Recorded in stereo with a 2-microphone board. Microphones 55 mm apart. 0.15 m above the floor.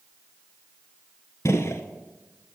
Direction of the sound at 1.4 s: 60° left (ahead or behind).